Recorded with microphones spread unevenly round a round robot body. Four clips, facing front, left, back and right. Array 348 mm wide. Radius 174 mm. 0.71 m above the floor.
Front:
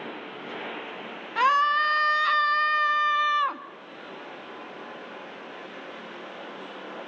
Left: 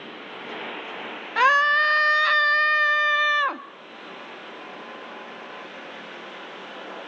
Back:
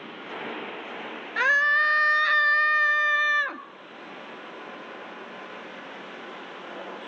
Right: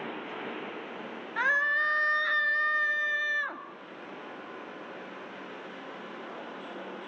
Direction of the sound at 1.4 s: 90° left.